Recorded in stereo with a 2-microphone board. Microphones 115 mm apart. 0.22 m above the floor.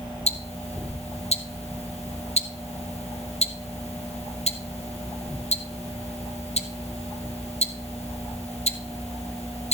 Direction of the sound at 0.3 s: 70° left (ahead or behind).